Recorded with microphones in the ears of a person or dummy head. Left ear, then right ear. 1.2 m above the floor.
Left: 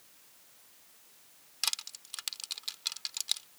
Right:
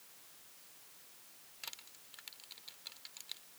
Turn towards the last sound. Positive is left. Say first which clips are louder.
# left 15 dB
turn(degrees=65)  # may be behind; listen again after turning